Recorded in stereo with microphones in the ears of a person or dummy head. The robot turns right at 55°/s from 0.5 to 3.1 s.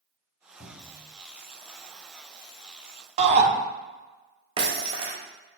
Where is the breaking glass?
25° right (ahead or behind), 0.8 m.